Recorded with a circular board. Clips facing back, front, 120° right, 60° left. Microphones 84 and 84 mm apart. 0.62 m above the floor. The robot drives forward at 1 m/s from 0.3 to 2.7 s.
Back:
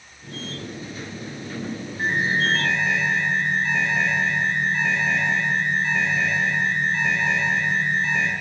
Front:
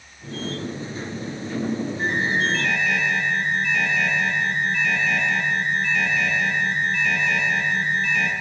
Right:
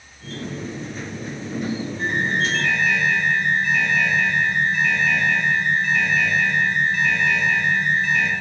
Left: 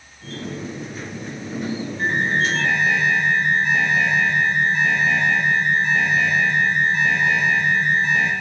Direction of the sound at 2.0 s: 115° left.